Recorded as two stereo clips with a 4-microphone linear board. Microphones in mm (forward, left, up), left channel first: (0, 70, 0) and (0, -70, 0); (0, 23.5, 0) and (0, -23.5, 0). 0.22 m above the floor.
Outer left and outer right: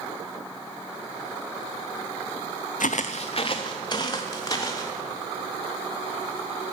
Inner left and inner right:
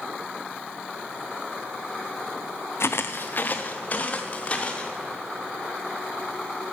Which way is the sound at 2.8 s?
70° left (ahead or behind).